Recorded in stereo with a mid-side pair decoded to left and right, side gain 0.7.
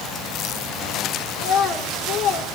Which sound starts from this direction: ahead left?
A child speaking, at 1.4 s.